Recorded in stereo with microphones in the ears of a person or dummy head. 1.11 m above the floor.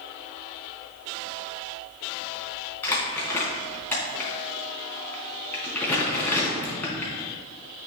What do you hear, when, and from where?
2.8 s crumpling: 15° left (ahead or behind), 3.5 m